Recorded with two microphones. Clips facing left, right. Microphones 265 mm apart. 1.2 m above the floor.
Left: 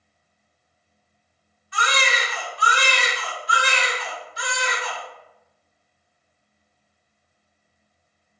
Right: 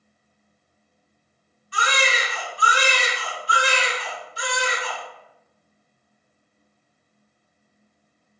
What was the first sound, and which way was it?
A baby crying, 35° right (ahead or behind).